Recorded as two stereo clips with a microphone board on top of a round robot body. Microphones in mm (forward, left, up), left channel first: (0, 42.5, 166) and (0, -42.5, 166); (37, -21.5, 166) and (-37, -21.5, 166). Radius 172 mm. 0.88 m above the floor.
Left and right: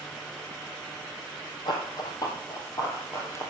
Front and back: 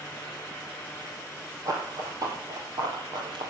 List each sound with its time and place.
1.6 s running footsteps: 130° left, 2.5 m; by 3.5 s 155° left, 2.0 m